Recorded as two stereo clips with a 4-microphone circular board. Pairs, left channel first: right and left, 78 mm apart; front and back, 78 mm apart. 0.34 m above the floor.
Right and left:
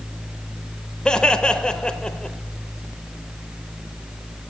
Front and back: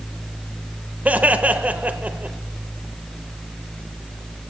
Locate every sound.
1.1 s laughter: 155° right, 0.9 m